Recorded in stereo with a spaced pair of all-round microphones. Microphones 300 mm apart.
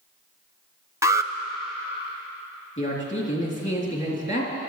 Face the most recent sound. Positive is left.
turn(degrees=40)  # may be behind; listen again after turning